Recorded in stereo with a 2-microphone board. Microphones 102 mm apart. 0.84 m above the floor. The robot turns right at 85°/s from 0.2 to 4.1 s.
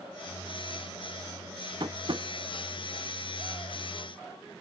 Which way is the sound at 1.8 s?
45° right (ahead or behind).